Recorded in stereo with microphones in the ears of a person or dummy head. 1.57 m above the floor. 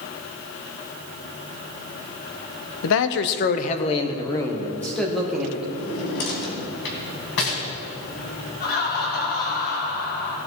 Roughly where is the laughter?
Left.